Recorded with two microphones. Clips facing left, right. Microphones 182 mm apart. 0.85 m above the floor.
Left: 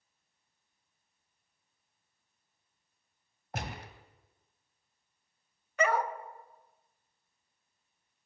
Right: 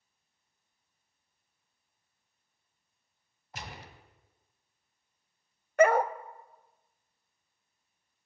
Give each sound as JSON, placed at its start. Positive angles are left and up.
{"t": 3.5, "sound": "a gunshot", "side_deg": 55, "distance_m": 2.5}
{"t": 5.8, "sound": "a dog barking", "side_deg": -50, "distance_m": 0.8}